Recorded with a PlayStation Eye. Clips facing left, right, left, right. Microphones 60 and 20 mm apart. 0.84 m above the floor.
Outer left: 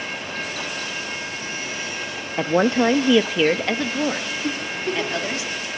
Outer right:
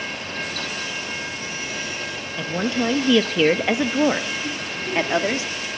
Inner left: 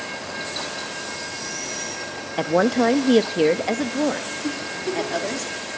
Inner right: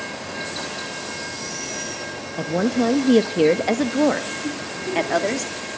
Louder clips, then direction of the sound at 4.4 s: Outer left 3 dB, inner left 1 dB; 50° left (ahead or behind).